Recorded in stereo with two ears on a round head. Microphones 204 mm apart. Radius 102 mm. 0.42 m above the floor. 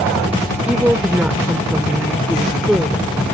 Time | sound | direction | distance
0.7 | a woman speaking | 5° right (ahead or behind) | ?